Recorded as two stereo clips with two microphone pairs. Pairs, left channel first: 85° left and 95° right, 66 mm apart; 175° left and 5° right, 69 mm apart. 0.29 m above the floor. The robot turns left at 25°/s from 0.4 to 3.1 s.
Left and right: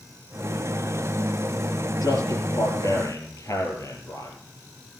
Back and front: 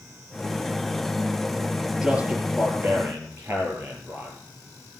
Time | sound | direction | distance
2.0 | a man speaking | 75° left | 5.5 m